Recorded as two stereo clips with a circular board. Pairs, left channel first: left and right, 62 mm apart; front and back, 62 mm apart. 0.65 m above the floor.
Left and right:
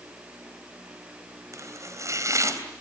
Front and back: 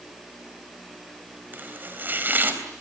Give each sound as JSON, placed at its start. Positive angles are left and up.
{"t": 1.5, "sound": "chopping", "azimuth_deg": -120, "distance_m": 3.5}